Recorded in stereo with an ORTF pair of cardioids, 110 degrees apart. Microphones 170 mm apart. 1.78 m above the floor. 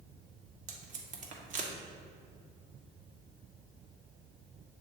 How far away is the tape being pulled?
About 1.3 m.